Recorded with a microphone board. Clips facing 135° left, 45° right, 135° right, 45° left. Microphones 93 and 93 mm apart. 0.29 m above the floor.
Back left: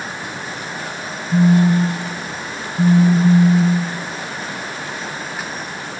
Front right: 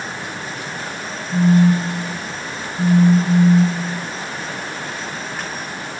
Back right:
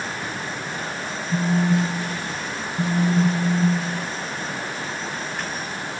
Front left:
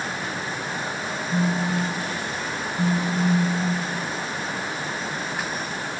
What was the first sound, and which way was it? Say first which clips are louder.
A phone buzzing: back left 1 dB, back right 4 dB; 155° left.